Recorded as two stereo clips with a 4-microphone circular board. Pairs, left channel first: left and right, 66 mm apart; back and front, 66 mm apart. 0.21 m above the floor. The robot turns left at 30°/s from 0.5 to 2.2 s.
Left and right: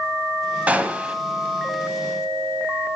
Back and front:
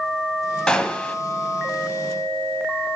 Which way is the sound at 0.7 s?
120° right.